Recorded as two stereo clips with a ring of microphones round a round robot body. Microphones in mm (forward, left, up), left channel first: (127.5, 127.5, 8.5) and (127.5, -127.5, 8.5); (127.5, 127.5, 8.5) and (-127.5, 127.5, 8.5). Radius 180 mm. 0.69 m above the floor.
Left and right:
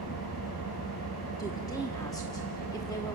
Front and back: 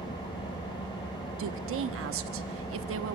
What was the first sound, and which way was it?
An engine running, 70° left.